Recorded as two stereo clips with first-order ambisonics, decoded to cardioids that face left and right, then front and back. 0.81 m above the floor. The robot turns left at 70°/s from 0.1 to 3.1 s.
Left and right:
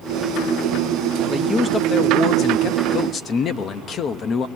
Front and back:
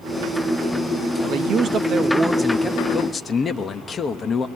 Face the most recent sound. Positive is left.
turn(degrees=55)